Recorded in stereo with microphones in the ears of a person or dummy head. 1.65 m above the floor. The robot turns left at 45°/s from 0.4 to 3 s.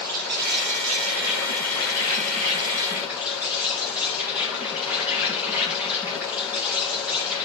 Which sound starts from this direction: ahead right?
An insect, at 0.0 s.